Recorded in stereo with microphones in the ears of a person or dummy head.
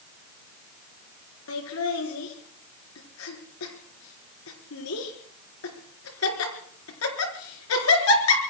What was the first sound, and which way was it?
Laughter, 85° left.